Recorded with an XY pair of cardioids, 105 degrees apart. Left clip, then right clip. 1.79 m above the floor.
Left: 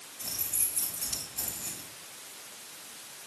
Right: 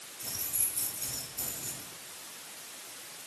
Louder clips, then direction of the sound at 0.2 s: Left 2 dB; 65° left.